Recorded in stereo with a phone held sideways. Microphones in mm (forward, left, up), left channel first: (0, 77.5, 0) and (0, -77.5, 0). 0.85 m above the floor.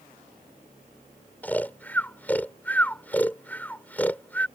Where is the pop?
I don't hear a pop.